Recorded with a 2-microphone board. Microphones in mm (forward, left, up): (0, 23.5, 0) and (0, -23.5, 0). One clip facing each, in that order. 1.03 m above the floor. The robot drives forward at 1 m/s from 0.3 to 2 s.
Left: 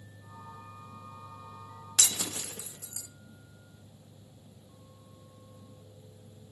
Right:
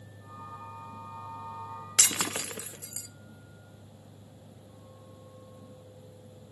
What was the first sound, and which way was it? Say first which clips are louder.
Breaking glass: right 3 dB; 60° right (ahead or behind).